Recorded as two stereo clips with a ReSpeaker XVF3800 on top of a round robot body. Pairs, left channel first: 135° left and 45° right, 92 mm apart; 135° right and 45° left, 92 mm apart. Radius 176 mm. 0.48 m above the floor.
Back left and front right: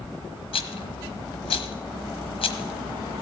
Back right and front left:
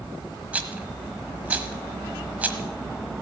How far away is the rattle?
About 1.2 m.